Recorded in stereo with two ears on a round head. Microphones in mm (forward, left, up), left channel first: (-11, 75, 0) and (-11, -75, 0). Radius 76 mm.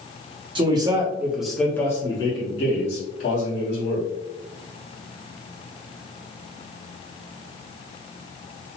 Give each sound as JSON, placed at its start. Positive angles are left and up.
{"t": 0.6, "sound": "a man speaking", "side_deg": -30, "distance_m": 0.9}